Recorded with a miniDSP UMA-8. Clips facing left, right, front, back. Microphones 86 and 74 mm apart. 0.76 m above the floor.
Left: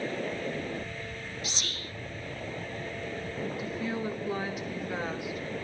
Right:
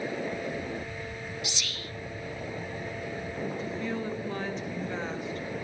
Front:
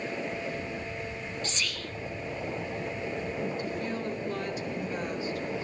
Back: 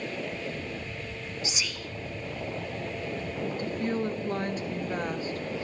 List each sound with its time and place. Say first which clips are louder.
1.4 s whispering: right 1 dB, even; 100° left, 0.8 m
3.6 s a woman speaking: even, back 3 dB; 165° left, 1.2 m